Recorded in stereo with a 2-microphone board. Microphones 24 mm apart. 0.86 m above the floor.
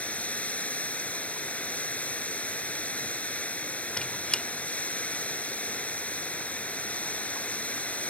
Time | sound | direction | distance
0.0 | running water | 80° left | ?
4.0 | a squeak | 40° left (ahead or behind) | ?